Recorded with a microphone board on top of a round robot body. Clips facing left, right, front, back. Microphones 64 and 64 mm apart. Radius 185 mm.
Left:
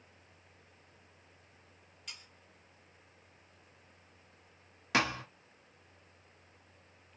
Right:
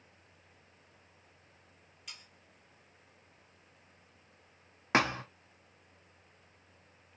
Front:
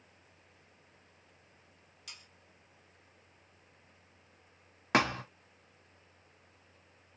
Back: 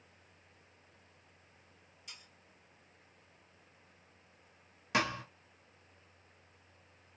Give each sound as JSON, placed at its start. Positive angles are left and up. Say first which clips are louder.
{"t": 2.1, "sound": "sawing", "louder": "left 1 dB, front 2 dB", "azimuth_deg": 0, "distance_m": 0.9}
{"t": 4.9, "sound": "a thud", "louder": "right 3 dB, front 4 dB", "azimuth_deg": -35, "distance_m": 0.5}